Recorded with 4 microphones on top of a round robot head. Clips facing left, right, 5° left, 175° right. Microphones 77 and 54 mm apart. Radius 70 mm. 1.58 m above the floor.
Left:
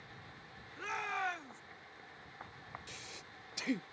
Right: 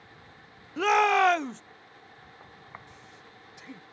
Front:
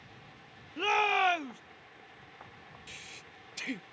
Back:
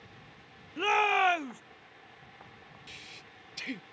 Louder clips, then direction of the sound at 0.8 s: Right 17 dB, back 2 dB; 90° right.